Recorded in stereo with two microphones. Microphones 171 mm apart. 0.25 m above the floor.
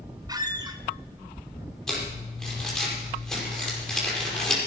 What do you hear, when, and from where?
0.3 s a squeak: 25° right (ahead or behind), 1.2 m
1.9 s crumpling: 5° left (ahead or behind), 6 m